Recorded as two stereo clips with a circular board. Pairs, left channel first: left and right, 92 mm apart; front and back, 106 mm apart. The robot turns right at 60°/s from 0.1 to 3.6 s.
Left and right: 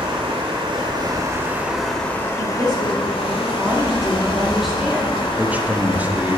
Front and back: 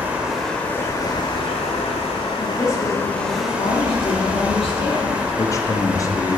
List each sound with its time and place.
0.0 s running water: 105° right, 1.9 m; by 6.4 s 105° left, 1.9 m
2.4 s a woman speaking: 75° right, 1.7 m; by 5.3 s 5° right, 1.7 m
5.4 s a man speaking: 30° right, 1.0 m